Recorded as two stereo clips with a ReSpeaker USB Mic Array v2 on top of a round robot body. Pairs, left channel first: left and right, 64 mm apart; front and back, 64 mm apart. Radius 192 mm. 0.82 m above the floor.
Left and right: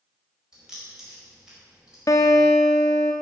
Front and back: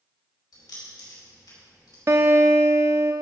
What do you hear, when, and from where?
0.5 s keys jangling: 10° right, 4.5 m
2.1 s a guitar: 130° left, 0.7 m